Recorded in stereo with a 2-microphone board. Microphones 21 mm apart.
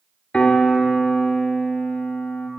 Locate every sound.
0.3 s a piano: 60° left (ahead or behind), 1.8 m